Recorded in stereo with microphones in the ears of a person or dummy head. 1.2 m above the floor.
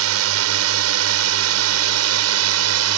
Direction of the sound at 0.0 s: 70° right (ahead or behind).